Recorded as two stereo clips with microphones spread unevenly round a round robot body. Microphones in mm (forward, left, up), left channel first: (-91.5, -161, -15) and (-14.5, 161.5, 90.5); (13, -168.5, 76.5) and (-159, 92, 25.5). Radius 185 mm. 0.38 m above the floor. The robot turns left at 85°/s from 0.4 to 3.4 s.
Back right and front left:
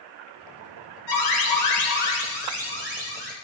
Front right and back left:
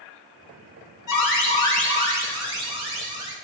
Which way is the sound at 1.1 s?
85° right.